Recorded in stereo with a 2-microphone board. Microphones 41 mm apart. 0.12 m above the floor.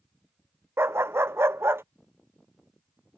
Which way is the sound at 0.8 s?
80° right.